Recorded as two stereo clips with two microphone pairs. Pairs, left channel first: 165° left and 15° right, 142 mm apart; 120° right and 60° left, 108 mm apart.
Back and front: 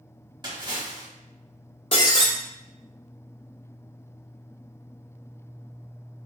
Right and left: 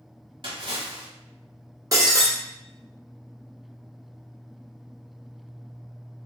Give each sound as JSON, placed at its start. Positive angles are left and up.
{"t": 0.4, "sound": "a splash", "azimuth_deg": 35, "distance_m": 1.1}
{"t": 1.9, "sound": "breaking glass", "azimuth_deg": 115, "distance_m": 1.1}